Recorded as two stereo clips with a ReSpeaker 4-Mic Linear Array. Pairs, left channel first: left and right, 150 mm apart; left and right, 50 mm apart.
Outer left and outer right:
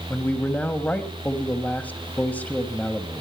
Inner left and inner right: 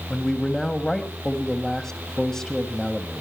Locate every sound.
0.1 s a man speaking: 10° left (ahead or behind), 1.5 m